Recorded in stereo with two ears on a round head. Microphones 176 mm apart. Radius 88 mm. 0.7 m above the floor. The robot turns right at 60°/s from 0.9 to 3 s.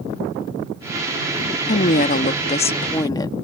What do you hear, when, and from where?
1.7 s a woman speaking: 70° left; by 3.3 s 150° left